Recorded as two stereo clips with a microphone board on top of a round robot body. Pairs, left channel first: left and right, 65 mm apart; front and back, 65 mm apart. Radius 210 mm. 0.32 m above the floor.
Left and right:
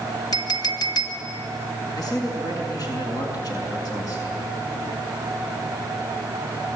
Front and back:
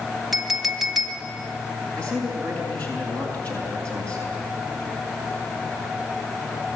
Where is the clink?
90° left, 2.5 m.